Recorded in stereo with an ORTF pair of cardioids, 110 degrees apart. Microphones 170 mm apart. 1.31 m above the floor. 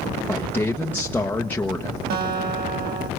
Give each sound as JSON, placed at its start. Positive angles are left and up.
{"t": 0.3, "sound": "a man speaking", "azimuth_deg": 10, "distance_m": 1.1}
{"t": 2.1, "sound": "a guitar", "azimuth_deg": -60, "distance_m": 5.0}